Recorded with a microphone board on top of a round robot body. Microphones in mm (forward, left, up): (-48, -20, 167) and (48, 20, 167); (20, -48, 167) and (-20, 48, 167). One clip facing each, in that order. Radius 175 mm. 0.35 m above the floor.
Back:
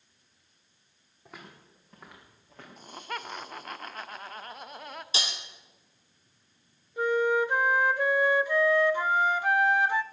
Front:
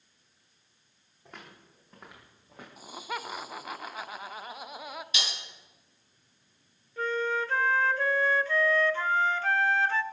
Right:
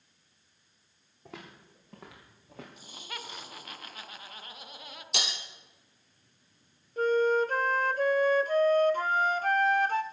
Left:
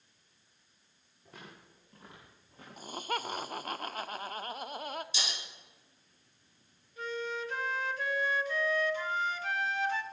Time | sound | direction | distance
1.2 | footsteps | 70° right | 5.5 m
2.8 | laughter | 105° left | 1.2 m
5.1 | breaking glass | 100° right | 3 m
7.0 | a flute | 85° right | 0.9 m